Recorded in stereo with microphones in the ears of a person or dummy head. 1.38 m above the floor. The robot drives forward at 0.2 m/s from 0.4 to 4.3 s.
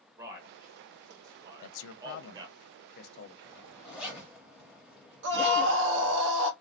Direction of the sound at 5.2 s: 60° right (ahead or behind).